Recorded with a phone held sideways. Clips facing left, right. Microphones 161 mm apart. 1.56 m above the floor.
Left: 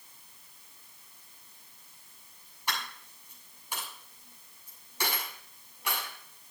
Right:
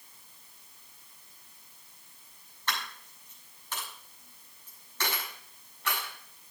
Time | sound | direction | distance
2.7 | a dropped coin | 15° left (ahead or behind) | 6.5 m